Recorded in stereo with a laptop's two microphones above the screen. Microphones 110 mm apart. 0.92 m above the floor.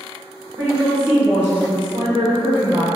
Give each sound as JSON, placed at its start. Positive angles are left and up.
{"t": 0.6, "sound": "a woman speaking", "side_deg": 0, "distance_m": 1.6}